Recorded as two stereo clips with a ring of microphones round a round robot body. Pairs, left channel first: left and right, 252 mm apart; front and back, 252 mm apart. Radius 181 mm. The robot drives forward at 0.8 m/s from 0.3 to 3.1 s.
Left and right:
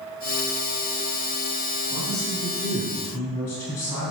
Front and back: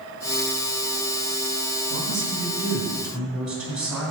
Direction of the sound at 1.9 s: 160° left.